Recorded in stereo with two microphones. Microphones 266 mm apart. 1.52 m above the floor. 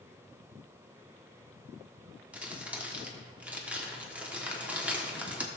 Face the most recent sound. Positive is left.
turn(degrees=-5)  # may be behind; listen again after turning